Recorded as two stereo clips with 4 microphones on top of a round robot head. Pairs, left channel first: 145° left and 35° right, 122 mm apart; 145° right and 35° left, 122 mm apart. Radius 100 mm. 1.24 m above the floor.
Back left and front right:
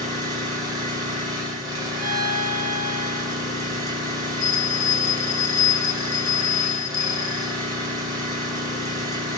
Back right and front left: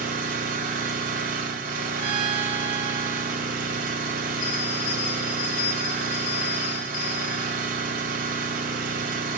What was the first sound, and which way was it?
An engine running, 25° left.